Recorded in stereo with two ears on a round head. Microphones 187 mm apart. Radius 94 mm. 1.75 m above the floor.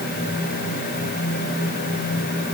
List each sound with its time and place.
Only background noise.